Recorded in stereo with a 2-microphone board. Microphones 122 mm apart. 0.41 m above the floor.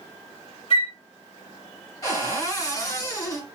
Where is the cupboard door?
25° left (ahead or behind), 1.0 m.